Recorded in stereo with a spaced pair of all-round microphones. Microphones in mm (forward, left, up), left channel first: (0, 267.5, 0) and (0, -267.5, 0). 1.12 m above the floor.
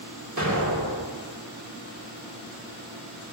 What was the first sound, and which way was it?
An explosion, 30° right (ahead or behind).